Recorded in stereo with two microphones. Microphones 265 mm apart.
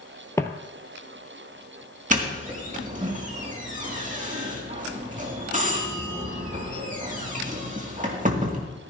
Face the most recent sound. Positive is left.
turn(degrees=-30)  # may be behind; listen again after turning